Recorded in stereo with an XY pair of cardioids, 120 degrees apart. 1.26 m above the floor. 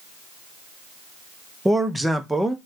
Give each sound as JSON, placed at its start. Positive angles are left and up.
{"t": 1.6, "sound": "a man speaking", "azimuth_deg": -5, "distance_m": 0.6}